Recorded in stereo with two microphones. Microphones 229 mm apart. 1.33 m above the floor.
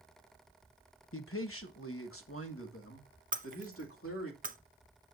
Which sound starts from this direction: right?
Breaking glass, at 3.3 s.